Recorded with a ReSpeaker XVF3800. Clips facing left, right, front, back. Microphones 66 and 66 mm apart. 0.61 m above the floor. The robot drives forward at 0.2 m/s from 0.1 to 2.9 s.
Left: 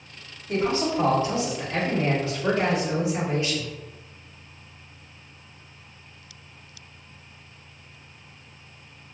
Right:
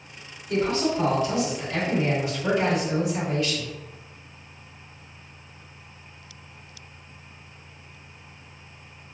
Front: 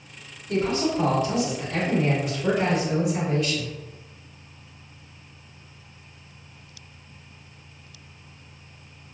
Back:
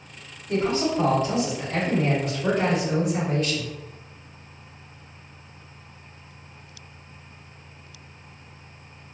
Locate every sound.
0.5 s a man speaking: 130° left, 1.4 m; by 3.7 s 145° left, 1.7 m